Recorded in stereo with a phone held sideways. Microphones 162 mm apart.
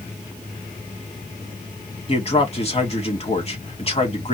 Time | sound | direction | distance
2.1 | a man speaking | 40° left (ahead or behind) | 2 m